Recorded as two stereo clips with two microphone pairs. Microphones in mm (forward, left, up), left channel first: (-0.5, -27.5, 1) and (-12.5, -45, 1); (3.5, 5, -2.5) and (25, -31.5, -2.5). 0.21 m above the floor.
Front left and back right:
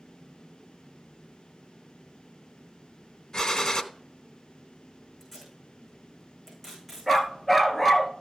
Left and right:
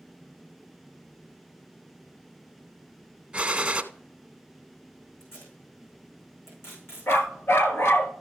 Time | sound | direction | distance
3.3 | a gunshot | 5° left | 0.7 m
5.2 | tape being pulled | 140° left | 5.5 m
7.1 | a dog barking | 135° left | 1.0 m